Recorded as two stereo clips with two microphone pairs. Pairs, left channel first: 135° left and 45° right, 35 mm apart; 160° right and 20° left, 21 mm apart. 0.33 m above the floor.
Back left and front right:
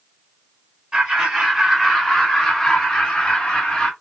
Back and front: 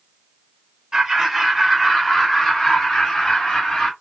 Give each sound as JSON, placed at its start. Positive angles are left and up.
{"t": 0.9, "sound": "laughter", "azimuth_deg": -25, "distance_m": 1.3}